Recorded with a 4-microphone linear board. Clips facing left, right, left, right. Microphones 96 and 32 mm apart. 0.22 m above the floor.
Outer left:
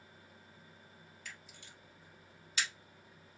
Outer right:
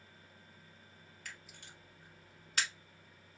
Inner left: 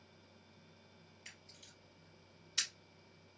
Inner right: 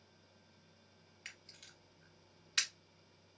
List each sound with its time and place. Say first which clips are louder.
1.2 s a camera shutter: outer right 1 dB, inner right 4 dB; 55° right (ahead or behind), 1.0 m